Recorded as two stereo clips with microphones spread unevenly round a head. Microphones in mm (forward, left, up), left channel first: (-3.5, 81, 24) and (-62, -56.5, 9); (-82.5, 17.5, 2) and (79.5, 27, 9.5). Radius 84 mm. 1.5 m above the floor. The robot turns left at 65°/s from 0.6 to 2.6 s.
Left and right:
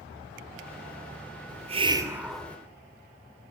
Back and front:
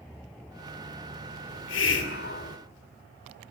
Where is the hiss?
150° right, 2.5 m; by 2.6 s 140° left, 2.5 m.